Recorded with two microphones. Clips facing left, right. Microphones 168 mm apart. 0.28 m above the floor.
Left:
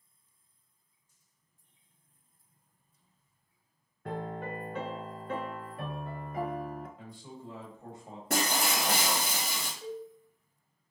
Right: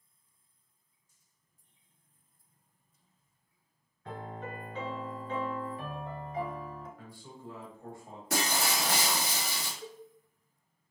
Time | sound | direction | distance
4.0 | a piano | 65° left (ahead or behind) | 0.5 m
7.0 | a man speaking | 20° left (ahead or behind) | 1.0 m
8.3 | breaking glass | 65° left (ahead or behind) | 1.2 m
9.8 | a cowbell | 30° left (ahead or behind) | 1.7 m